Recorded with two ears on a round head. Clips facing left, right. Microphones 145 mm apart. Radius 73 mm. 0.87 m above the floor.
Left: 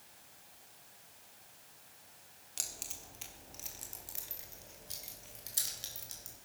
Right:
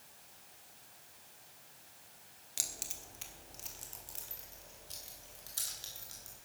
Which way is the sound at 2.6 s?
10° right (ahead or behind).